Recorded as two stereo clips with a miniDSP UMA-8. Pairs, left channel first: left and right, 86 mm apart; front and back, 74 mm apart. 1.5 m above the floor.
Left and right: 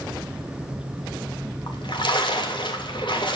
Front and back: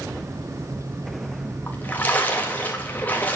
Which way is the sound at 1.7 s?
65° left.